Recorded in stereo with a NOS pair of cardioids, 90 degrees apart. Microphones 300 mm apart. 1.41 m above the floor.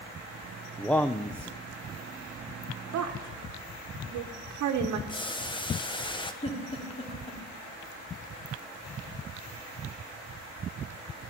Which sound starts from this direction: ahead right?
A woman speaking, at 2.9 s.